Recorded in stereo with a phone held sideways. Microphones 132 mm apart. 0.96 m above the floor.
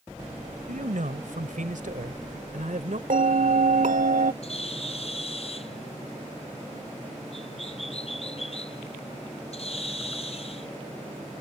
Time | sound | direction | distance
0.7 | a man speaking | 85° right | ?
3.1 | a bell | 85° right | ?
4.4 | a bird | 55° left (ahead or behind) | ?